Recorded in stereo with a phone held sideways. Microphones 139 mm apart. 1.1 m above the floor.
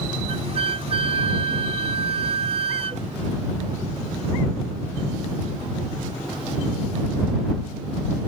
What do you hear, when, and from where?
0.3 s a flute: 45° right (ahead or behind)